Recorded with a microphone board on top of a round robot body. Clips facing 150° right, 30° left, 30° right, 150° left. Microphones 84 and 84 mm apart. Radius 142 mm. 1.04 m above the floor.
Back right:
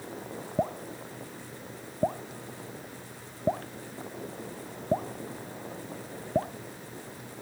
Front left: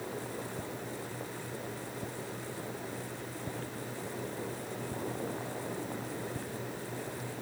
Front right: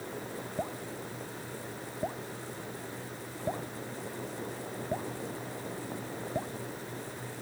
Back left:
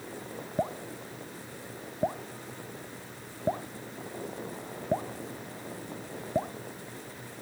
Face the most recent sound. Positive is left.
turn(degrees=-145)